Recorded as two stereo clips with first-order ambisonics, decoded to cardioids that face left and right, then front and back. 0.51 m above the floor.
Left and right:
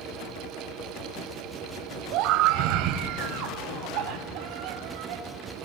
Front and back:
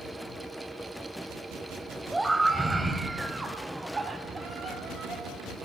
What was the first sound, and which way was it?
A scream, 100° right.